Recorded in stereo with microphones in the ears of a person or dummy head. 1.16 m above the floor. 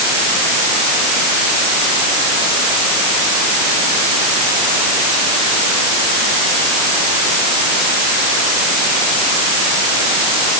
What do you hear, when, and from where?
Only background noise.